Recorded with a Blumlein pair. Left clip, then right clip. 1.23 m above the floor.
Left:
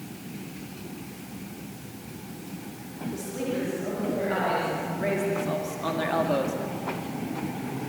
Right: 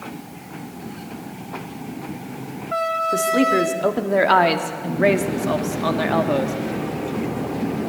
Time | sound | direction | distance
3.1 | a woman speaking | 35° right | 2.5 m